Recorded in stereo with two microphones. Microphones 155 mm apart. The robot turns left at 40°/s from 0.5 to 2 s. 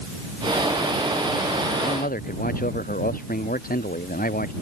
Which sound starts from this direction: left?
A man speaking, at 1.8 s.